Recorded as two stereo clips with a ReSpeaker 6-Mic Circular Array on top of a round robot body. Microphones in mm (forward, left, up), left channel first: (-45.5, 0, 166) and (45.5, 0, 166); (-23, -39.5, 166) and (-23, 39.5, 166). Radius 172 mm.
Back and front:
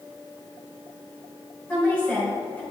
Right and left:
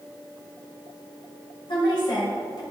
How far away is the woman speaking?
About 3.5 m.